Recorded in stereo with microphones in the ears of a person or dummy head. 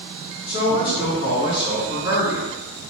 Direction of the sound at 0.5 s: 35° left (ahead or behind).